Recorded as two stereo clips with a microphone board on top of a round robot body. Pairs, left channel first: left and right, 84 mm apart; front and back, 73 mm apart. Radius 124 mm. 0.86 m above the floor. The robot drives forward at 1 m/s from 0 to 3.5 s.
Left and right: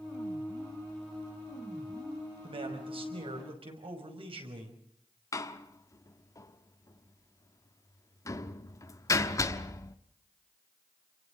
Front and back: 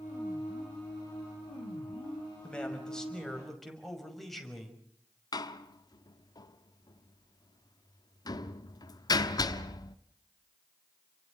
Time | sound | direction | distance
2.4 | a man speaking | 80° right | 5.5 m
5.3 | a door slam | 35° left | 1.1 m